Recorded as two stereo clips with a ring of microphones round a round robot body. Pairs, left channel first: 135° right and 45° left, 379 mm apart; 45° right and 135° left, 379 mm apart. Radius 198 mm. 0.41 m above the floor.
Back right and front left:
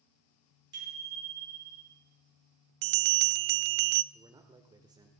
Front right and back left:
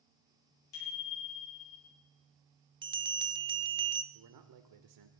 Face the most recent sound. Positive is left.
turn(degrees=125)